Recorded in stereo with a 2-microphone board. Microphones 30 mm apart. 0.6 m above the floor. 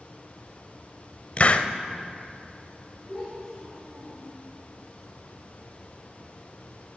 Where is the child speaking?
20° left (ahead or behind), 4.5 m.